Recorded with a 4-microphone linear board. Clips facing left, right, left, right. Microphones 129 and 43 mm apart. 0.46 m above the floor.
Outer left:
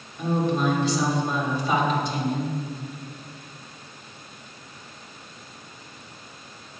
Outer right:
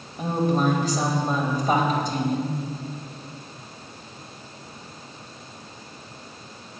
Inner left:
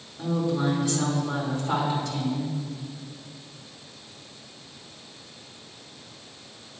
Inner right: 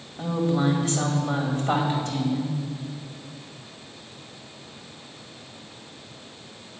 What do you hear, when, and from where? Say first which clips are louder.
0.2 s a woman speaking: outer right 1 dB, inner right 2 dB; 45° right (ahead or behind), 2.5 m